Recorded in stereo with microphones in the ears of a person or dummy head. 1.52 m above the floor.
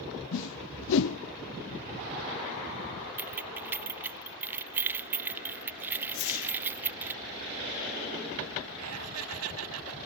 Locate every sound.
0.3 s a whoosh: 70° left (ahead or behind)
3.2 s keys jangling: 10° right (ahead or behind)
6.1 s a whoosh: 75° left (ahead or behind)
8.8 s laughter: 80° right